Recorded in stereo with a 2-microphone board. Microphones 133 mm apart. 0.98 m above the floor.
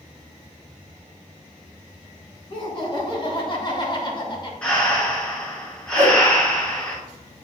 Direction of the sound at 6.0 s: 55° right (ahead or behind).